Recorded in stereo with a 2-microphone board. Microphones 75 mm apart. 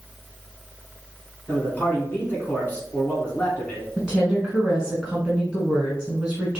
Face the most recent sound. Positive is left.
turn(degrees=-15)  # may be behind; listen again after turning